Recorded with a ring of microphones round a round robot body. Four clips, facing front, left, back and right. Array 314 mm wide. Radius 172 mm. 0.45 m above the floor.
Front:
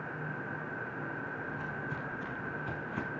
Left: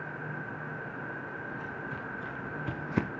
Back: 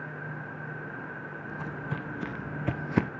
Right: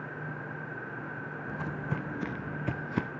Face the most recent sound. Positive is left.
turn(degrees=160)